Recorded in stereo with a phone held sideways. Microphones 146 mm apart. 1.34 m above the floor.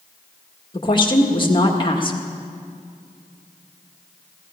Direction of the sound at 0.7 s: 35° left (ahead or behind).